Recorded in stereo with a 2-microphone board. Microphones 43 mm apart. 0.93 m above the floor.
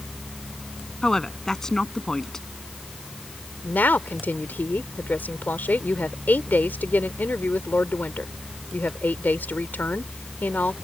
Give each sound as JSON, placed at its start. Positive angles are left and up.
{"t": 1.0, "sound": "a woman speaking", "side_deg": 15}
{"t": 3.6, "sound": "a woman speaking", "side_deg": 45}